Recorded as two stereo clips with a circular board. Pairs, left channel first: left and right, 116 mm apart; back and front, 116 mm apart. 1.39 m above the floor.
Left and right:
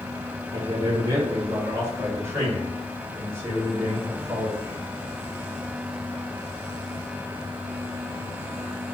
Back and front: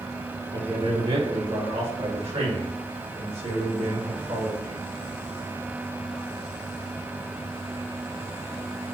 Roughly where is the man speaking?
Ahead right.